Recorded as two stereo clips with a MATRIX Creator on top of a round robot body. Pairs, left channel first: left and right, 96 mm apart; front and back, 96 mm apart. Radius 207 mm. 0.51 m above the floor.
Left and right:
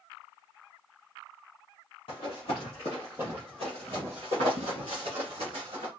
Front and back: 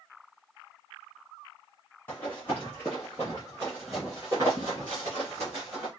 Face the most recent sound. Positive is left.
turn(degrees=-120)